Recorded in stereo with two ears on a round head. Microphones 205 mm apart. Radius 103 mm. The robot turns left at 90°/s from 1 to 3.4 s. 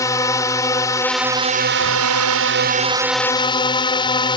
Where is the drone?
15° left; by 4.4 s 160° left.